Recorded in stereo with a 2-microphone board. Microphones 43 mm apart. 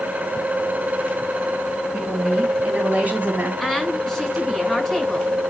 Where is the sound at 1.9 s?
20° right (ahead or behind), 3.5 m; by 3.5 s 40° right (ahead or behind), 3.5 m.